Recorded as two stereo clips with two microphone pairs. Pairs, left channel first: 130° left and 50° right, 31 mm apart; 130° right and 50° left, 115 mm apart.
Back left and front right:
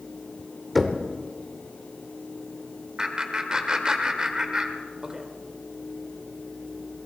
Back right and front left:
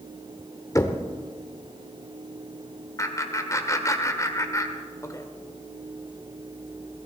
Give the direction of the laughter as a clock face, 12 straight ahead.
3 o'clock.